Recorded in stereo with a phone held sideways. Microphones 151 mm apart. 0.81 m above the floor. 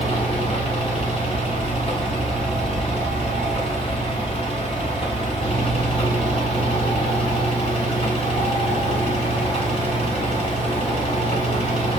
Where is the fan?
40° left (ahead or behind), 1.6 m.